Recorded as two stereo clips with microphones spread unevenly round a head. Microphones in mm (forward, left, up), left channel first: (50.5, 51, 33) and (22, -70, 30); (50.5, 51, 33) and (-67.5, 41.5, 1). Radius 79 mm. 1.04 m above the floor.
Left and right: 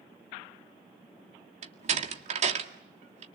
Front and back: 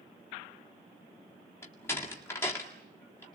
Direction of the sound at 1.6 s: 70° right.